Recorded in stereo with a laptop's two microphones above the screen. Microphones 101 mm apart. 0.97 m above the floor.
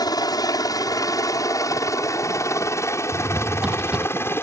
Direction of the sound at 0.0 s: 40° left (ahead or behind).